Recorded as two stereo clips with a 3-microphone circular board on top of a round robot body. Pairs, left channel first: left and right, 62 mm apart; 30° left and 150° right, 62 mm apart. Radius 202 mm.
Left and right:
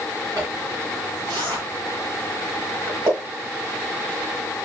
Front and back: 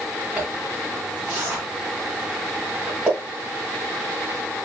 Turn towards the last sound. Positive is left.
turn(degrees=-80)